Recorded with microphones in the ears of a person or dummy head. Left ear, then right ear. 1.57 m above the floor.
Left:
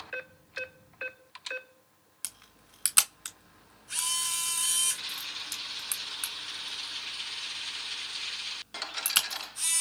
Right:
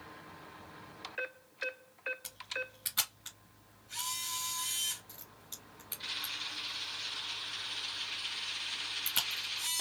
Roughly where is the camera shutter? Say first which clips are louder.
Right 8 dB; left.